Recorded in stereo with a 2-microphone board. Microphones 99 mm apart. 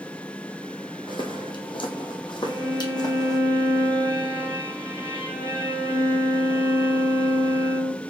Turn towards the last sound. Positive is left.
turn(degrees=-35)  # may be behind; listen again after turning